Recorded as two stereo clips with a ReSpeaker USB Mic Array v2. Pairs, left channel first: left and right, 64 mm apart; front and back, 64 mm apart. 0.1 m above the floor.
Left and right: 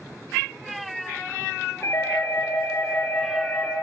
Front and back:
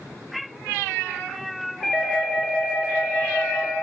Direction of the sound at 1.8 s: 85° left.